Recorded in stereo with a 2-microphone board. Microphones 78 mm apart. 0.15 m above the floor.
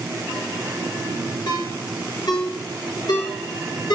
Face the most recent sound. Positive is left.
turn(degrees=55)  # may be behind; listen again after turning